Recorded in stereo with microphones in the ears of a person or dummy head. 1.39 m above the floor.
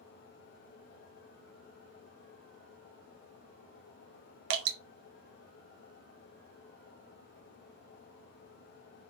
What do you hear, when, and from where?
4.5 s dripping: 60° right (ahead or behind), 0.7 m